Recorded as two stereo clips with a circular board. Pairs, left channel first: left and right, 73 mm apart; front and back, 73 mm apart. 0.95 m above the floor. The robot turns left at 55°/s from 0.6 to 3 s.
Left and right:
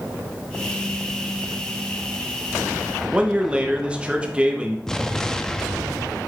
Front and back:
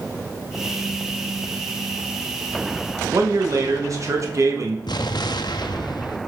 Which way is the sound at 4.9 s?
10° left.